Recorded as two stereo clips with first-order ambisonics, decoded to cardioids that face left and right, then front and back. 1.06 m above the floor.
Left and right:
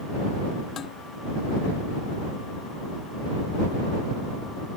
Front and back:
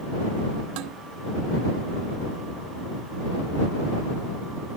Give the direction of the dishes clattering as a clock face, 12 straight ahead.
7 o'clock.